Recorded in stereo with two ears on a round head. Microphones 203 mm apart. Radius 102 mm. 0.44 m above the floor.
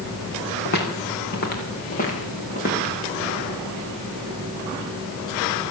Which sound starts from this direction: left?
Footsteps, at 0.7 s.